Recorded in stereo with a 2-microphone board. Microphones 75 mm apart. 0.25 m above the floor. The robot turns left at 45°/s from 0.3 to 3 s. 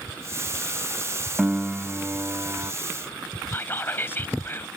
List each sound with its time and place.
1.4 s a piano: 5° right; by 2.7 s 65° right
3.5 s whispering: 30° left (ahead or behind)